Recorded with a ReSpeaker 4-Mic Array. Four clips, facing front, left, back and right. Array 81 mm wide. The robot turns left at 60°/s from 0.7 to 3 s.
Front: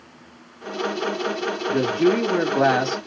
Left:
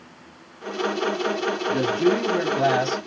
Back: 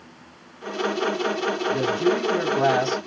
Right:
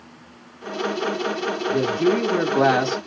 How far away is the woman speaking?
About 2.5 m.